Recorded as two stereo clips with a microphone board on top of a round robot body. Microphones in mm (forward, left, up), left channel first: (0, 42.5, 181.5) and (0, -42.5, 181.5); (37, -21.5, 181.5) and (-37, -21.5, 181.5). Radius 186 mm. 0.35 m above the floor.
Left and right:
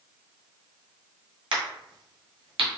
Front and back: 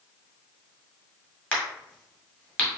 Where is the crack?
75° right, 2 m.